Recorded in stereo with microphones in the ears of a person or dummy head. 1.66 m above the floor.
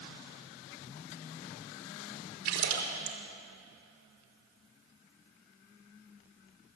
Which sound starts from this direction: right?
A splash, at 2.5 s.